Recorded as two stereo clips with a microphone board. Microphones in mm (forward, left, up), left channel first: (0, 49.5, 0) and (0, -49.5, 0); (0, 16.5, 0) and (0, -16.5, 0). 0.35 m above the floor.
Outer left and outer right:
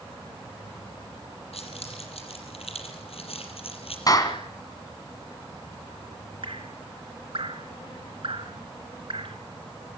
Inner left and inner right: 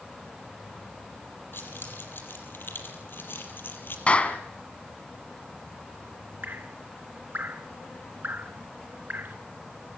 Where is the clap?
40° left (ahead or behind), 2.5 m.